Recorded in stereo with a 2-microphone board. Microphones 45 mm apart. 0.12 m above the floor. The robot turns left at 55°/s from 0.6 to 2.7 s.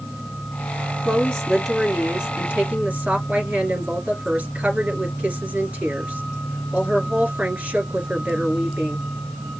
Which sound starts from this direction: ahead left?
A woman speaking, at 1.1 s.